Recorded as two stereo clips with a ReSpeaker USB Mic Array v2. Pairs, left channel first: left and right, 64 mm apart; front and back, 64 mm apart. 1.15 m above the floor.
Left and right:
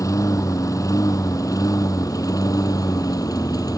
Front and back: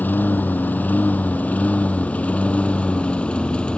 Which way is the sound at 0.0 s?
60° left.